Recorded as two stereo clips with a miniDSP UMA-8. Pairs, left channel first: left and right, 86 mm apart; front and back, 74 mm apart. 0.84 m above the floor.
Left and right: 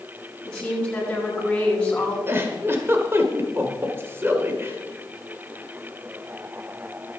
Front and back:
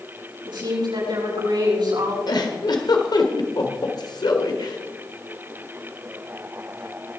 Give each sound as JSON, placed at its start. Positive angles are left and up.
{"t": 0.5, "sound": "a woman speaking", "azimuth_deg": 170, "distance_m": 7.5}
{"t": 2.3, "sound": "a giggle", "azimuth_deg": -25, "distance_m": 1.7}